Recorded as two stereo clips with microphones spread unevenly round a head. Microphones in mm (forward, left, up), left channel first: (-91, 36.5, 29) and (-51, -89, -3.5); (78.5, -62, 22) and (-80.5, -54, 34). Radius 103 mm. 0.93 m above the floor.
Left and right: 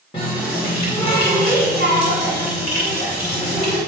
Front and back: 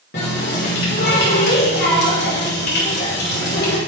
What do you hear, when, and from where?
0.1 s a running tap: 40° left, 1.9 m